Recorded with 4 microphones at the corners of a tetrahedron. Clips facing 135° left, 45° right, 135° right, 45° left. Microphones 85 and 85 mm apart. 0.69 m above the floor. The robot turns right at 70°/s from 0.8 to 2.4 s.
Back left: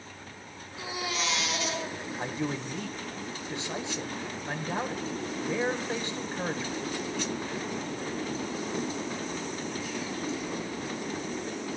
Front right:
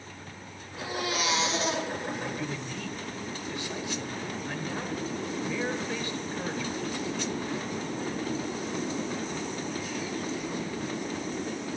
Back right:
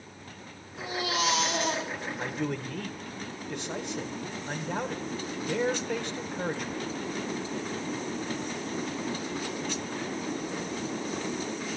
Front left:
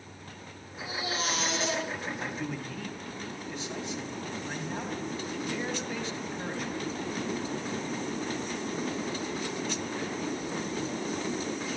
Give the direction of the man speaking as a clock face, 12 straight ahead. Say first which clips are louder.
Back left 2 dB, back right 3 dB; 6 o'clock.